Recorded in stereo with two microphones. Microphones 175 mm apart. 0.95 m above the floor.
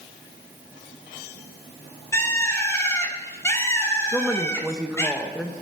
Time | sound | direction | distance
2.1 | a bird | 15° left (ahead or behind) | 2.5 m
4.1 | a woman speaking | 5° right (ahead or behind) | 1.1 m